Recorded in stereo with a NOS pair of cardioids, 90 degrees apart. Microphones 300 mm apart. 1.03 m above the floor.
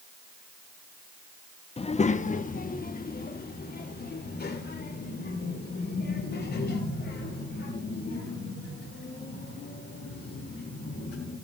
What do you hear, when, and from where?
1.8 s a child speaking: 20° left, 0.7 m; by 11.3 s 40° left, 6.5 m